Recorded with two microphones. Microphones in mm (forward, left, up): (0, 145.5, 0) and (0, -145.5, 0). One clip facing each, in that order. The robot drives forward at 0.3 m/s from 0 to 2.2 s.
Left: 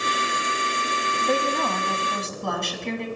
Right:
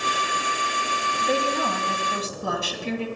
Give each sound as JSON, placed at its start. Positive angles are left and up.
{"t": 1.2, "sound": "a woman speaking", "side_deg": -5, "distance_m": 1.2}